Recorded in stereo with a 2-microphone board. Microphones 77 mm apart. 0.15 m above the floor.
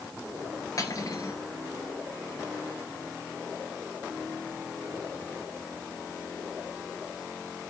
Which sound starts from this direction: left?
Cutlery clinking, at 0.8 s.